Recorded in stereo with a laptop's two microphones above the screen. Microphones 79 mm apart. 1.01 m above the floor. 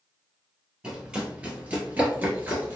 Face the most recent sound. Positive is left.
turn(degrees=-25)  # may be behind; listen again after turning